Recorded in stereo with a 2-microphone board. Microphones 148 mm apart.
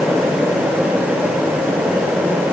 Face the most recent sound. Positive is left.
No sound to turn to.